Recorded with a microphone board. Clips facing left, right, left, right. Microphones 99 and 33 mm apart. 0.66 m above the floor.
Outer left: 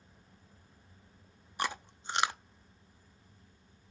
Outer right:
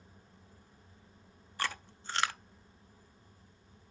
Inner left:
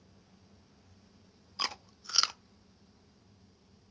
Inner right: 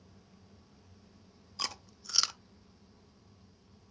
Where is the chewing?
20° left (ahead or behind), 0.5 m.